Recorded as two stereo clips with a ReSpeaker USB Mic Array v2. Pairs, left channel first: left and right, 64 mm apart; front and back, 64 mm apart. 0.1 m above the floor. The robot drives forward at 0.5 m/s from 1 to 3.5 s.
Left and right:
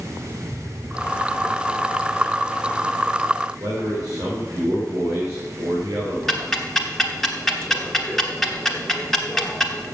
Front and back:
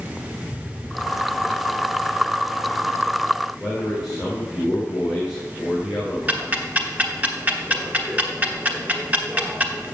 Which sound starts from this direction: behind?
Ticking, at 6.3 s.